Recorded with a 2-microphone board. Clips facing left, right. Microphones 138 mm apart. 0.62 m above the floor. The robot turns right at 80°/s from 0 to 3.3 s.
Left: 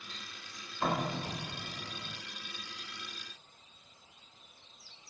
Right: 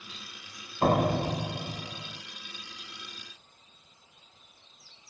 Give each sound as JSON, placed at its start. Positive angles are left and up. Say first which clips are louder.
{"t": 0.8, "sound": "a door slam", "louder": "right 9 dB", "azimuth_deg": -125, "distance_m": 0.5}